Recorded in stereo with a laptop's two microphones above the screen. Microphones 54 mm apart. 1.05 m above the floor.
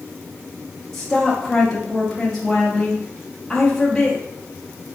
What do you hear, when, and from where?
0.9 s a woman speaking: 5° left (ahead or behind), 0.7 m